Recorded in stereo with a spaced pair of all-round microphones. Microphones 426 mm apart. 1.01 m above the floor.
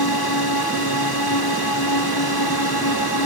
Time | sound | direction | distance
0.0 | a drone | 60° left (ahead or behind) | ?